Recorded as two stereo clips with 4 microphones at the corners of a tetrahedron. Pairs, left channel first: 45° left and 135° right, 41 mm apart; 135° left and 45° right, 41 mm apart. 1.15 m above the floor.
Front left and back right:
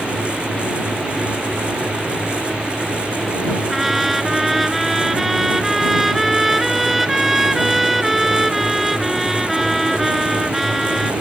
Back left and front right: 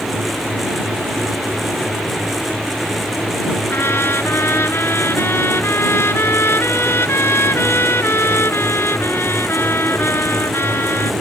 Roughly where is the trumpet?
Behind left.